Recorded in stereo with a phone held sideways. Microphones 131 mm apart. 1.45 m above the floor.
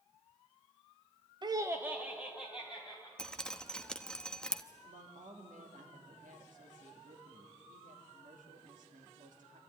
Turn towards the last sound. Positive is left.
turn(degrees=-85)